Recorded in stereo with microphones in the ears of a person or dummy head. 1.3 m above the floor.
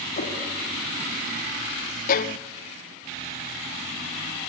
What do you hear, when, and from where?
0.2 s a whoosh: 35° left (ahead or behind), 2.5 m
2.1 s a violin: 45° left (ahead or behind), 0.7 m